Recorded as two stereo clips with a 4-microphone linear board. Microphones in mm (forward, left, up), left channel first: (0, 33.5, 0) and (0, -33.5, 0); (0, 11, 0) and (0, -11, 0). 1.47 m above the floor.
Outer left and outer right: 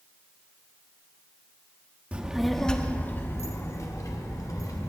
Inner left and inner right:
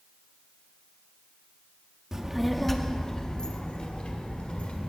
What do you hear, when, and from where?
2.1 s a child speaking: 20° right (ahead or behind), 1.2 m; by 4.9 s 60° left (ahead or behind), 3 m